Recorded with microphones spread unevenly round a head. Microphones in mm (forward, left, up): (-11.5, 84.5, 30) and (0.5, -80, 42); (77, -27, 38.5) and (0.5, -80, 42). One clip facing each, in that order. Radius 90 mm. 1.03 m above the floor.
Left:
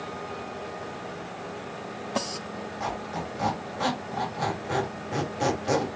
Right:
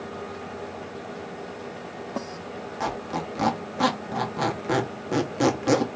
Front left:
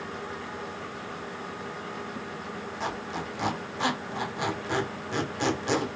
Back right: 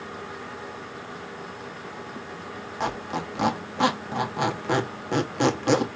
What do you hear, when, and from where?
2.8 s a squeak: 115° right, 1.2 m